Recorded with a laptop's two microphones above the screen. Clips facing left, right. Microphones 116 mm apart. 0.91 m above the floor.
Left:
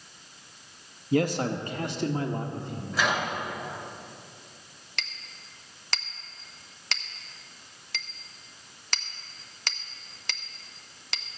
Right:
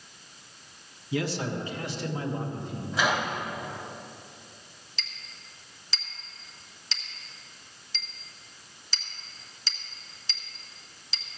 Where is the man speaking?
50° left (ahead or behind), 0.9 m; by 2.8 s 65° left (ahead or behind), 2 m.